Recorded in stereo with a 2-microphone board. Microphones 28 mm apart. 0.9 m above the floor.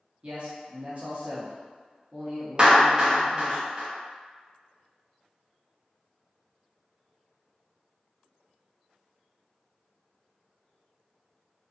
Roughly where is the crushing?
I don't hear crushing.